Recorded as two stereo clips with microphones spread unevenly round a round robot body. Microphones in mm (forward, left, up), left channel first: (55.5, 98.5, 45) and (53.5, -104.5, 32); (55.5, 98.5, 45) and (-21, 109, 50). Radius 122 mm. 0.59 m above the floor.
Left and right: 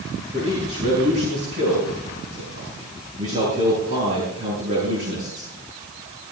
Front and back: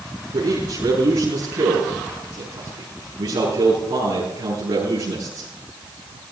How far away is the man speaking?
About 8.5 m.